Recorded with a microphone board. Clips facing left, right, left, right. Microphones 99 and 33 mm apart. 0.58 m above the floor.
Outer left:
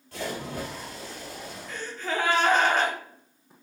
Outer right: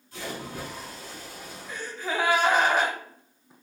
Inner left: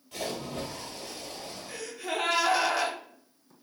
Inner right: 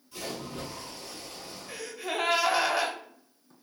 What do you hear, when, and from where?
0.1 s a splash: 70° left (ahead or behind), 1.2 m
1.7 s a gasp: 10° right (ahead or behind), 0.6 m